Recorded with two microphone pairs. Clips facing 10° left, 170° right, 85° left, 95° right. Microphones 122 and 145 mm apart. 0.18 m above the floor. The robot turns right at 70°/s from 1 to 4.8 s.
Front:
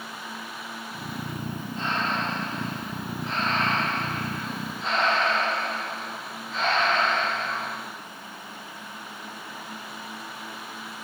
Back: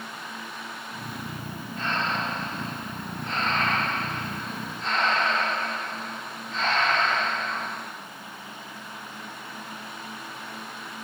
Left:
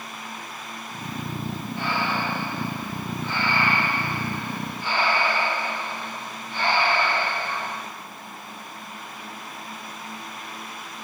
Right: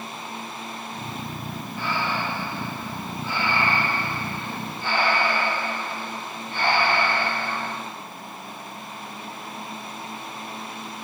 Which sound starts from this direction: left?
Breathing, at 1.8 s.